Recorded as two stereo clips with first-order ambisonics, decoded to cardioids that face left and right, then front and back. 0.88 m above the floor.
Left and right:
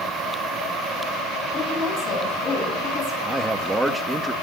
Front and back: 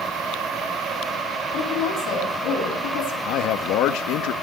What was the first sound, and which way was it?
A woman speaking, 35° left.